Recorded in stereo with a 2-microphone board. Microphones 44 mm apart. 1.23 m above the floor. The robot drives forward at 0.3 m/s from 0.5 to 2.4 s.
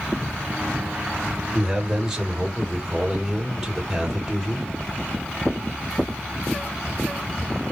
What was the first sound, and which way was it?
A man speaking, 10° right (ahead or behind).